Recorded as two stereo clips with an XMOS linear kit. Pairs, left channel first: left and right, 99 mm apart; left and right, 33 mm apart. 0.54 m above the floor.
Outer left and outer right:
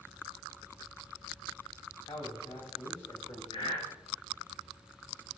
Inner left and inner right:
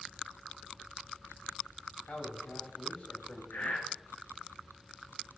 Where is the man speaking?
70° left (ahead or behind), 3 m; by 3.4 s 60° left (ahead or behind), 2.5 m.